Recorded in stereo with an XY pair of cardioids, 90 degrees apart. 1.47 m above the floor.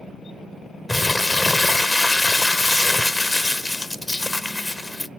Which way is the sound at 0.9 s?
20° left.